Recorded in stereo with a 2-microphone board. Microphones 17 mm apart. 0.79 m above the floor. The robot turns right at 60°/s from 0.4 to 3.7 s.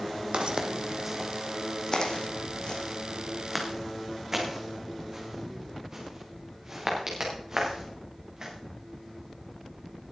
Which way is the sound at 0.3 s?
55° right (ahead or behind).